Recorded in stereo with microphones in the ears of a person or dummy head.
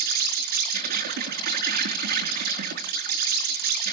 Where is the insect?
60° right (ahead or behind), 4 m.